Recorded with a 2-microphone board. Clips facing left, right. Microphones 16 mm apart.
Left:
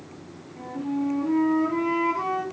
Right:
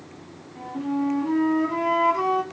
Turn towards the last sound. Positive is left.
turn(degrees=-30)  # may be behind; listen again after turning